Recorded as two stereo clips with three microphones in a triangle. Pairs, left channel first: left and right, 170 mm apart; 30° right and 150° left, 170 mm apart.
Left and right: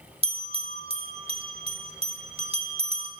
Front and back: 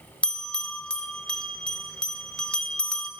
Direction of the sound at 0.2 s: 110° right.